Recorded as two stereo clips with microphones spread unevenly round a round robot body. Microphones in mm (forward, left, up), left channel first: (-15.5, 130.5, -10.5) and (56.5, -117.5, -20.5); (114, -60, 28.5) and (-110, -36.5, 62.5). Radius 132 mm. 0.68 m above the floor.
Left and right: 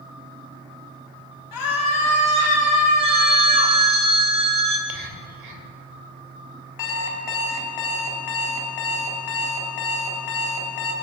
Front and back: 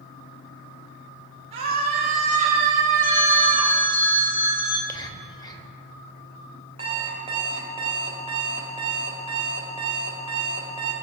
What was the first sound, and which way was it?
A scream, 105° left.